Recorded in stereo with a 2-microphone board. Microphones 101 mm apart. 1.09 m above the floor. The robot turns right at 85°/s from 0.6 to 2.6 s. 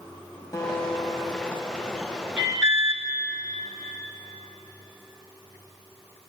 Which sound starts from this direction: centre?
An alarm, at 2.4 s.